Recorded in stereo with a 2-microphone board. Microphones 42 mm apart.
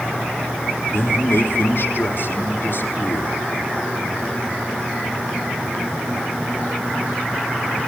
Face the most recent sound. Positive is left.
turn(degrees=80)